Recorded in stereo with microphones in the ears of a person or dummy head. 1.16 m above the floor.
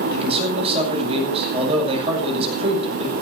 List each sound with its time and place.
0.1 s a man speaking: 35° right (ahead or behind), 8 m